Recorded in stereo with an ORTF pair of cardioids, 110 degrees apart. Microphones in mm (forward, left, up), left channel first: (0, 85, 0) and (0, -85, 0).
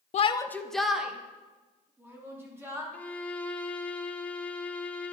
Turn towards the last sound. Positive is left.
turn(degrees=10)